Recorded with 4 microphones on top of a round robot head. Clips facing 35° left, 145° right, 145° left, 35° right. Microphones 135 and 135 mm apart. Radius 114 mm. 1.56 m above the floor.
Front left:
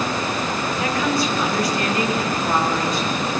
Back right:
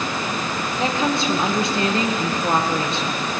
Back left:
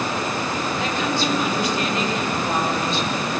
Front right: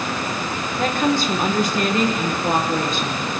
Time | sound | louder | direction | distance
0.8 | a woman speaking | back right 1 dB, front right 7 dB | 80° right | 2 m